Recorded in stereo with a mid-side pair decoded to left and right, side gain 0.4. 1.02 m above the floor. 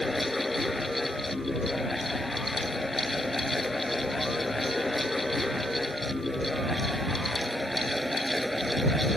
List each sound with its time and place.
0.0 s a fan: 20° left